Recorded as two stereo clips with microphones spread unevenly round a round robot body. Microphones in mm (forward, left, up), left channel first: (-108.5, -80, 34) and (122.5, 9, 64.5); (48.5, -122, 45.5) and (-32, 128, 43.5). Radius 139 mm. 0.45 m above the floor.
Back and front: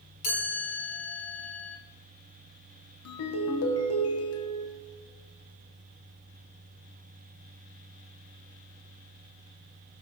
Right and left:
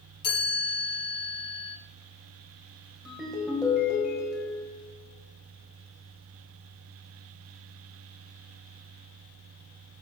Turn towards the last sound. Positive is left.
turn(degrees=-165)